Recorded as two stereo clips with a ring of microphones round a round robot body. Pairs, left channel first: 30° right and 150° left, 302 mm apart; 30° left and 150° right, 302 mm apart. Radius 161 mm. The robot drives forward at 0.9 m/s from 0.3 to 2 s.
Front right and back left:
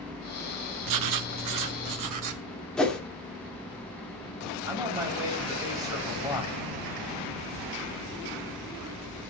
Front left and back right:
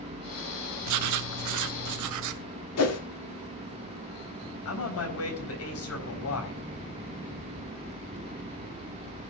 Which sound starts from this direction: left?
A man speaking, at 4.7 s.